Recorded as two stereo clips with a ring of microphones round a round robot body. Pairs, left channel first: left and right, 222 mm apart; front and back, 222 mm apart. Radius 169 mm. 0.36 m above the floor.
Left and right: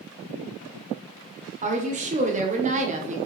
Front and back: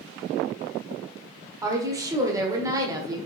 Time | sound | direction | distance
1.6 | a woman speaking | 115° right | 1.5 m